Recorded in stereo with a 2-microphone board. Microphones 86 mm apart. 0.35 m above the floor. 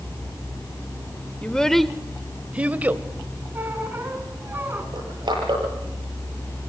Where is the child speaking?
10° left (ahead or behind), 0.7 m; by 3.0 s 20° right (ahead or behind), 1.2 m.